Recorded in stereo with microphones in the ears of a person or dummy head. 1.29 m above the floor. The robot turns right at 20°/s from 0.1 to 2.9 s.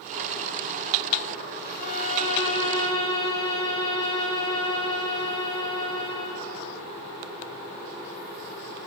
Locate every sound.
1.8 s a violin: 50° left (ahead or behind), 5 m; by 6.5 s 25° left (ahead or behind), 5 m